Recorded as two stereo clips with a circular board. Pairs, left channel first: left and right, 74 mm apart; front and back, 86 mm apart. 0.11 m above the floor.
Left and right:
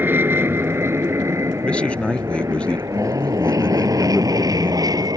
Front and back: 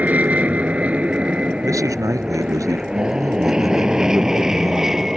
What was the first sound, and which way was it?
An aircraft, 125° right.